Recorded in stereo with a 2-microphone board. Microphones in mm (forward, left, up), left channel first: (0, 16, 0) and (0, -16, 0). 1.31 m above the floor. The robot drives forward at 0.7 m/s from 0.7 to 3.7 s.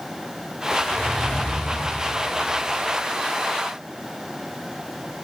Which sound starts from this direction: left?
A zipper, at 0.7 s.